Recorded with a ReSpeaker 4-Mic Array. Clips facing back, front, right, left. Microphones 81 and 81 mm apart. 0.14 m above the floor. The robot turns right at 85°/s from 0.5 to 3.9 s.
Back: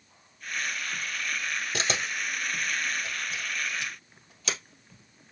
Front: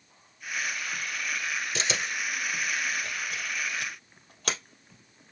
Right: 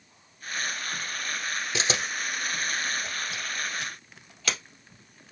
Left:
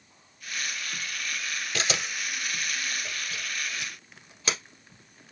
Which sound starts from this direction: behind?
A camera shutter, at 1.7 s.